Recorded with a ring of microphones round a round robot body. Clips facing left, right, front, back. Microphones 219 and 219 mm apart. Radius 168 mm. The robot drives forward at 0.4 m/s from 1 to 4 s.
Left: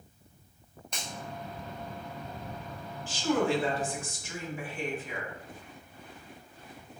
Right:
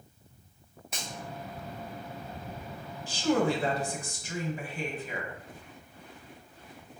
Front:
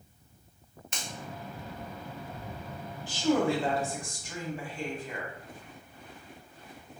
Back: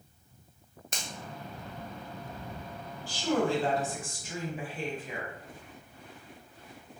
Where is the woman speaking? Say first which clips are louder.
Right 1 dB, front 2 dB; 60° right, 0.9 m; by 5.3 s 100° right, 0.9 m.